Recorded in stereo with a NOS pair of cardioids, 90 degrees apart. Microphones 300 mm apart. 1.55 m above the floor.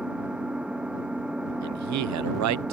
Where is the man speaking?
65° right.